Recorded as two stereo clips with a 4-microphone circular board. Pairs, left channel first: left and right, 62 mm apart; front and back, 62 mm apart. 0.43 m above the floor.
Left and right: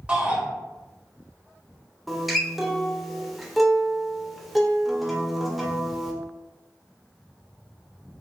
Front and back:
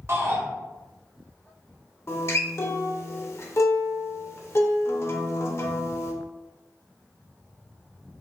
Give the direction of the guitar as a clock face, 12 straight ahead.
12 o'clock.